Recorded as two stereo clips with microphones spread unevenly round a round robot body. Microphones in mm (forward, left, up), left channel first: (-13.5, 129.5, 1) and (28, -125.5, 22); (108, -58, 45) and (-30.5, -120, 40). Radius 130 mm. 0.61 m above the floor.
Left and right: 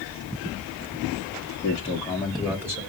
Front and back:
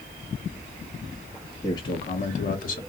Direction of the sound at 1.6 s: 85° left.